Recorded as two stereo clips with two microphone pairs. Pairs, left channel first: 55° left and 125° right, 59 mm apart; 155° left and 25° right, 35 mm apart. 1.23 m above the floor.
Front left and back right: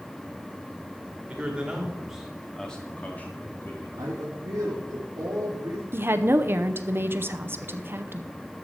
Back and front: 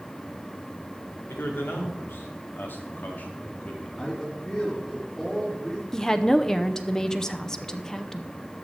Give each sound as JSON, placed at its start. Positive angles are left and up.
{"t": 1.3, "sound": "a man speaking", "azimuth_deg": 165, "distance_m": 2.5}
{"t": 4.0, "sound": "a man speaking", "azimuth_deg": -125, "distance_m": 3.0}
{"t": 5.9, "sound": "a woman speaking", "azimuth_deg": -140, "distance_m": 0.7}